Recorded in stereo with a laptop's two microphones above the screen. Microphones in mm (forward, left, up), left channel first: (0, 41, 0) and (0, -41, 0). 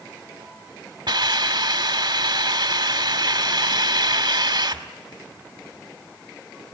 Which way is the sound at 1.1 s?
70° right (ahead or behind).